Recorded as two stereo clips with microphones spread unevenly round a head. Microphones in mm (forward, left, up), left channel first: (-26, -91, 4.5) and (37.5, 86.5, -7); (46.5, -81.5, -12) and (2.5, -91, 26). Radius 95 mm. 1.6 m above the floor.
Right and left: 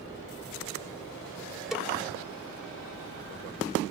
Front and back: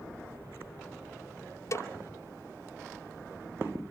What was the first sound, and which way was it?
A snare drum, 20° right.